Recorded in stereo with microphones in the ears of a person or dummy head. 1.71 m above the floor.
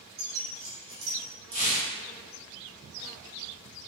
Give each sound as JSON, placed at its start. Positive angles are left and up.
{"t": 0.2, "sound": "keys jangling", "side_deg": -60, "distance_m": 1.6}
{"t": 1.5, "sound": "tearing paper", "side_deg": -35, "distance_m": 1.1}